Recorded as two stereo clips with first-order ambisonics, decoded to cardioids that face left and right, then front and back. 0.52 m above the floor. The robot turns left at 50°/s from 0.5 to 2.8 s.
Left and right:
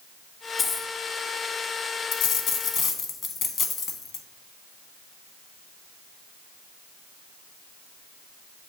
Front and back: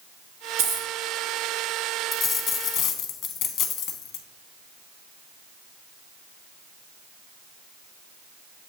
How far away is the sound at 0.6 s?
About 1.2 m.